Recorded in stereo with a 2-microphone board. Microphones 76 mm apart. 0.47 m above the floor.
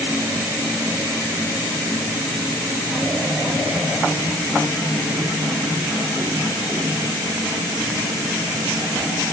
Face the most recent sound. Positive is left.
No sound to turn to.